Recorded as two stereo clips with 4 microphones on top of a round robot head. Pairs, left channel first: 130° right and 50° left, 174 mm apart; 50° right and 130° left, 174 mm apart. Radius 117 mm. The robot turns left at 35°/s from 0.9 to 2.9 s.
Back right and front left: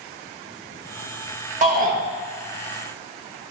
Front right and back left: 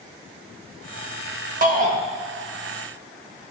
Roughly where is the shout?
Left.